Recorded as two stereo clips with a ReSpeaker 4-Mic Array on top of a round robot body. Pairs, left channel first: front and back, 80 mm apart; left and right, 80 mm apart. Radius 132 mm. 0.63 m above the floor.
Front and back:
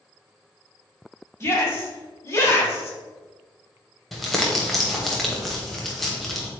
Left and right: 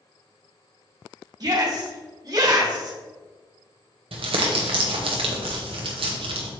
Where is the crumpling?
90° right, 0.8 m.